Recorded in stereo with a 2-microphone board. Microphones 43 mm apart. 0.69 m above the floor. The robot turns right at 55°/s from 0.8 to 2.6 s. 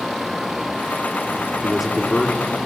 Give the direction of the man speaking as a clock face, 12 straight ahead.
12 o'clock.